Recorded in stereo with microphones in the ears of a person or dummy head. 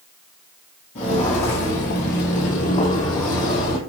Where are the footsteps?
40° left (ahead or behind), 1.4 m; by 3.8 s 35° left (ahead or behind), 1.8 m.